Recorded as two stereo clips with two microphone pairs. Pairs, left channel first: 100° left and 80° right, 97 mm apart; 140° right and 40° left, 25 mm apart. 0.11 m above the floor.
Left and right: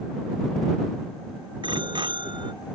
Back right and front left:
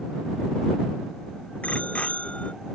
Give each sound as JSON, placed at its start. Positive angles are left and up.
{"t": 1.6, "sound": "a bicycle bell", "azimuth_deg": -115}